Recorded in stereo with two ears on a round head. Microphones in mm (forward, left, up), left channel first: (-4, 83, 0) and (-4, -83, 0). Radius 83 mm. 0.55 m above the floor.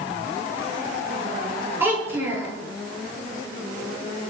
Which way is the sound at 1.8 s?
15° right (ahead or behind).